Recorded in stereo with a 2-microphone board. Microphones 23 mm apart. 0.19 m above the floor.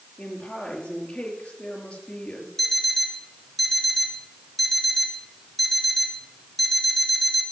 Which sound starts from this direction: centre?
An alarm clock, at 2.6 s.